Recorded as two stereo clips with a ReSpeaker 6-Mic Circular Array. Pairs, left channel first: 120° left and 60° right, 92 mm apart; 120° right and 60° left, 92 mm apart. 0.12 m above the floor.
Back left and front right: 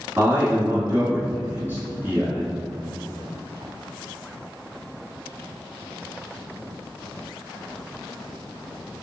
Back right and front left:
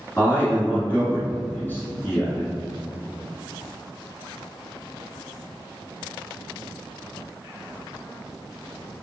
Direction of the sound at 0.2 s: 85° right.